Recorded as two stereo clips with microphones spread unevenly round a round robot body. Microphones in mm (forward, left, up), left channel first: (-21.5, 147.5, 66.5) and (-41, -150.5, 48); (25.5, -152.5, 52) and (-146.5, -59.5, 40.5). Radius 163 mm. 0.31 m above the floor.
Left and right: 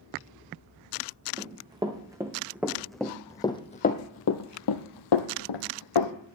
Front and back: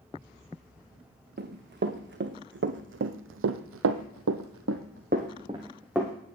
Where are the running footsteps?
170° right, 1.8 m; by 6.1 s 60° left, 1.1 m.